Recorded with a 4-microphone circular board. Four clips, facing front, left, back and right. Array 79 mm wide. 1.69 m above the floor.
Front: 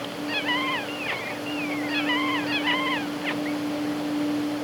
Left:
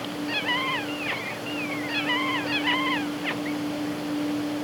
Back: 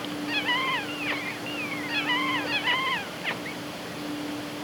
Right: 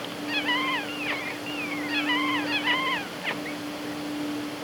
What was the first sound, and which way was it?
Only background noise.